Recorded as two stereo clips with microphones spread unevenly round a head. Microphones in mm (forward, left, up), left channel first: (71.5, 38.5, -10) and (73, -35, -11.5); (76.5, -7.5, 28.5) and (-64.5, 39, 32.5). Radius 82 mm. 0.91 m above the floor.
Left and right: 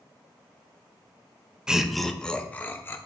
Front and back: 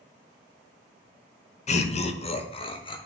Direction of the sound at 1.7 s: 10° right.